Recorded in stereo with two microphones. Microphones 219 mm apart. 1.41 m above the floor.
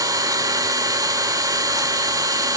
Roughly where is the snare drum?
I don't hear a snare drum.